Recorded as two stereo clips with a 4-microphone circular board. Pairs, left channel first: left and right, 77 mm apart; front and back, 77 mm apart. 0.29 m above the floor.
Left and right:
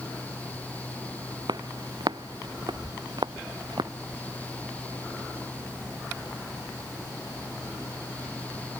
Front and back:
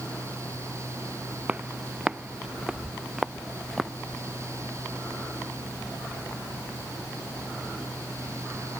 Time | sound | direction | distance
1.5 | footsteps | 110° right | ?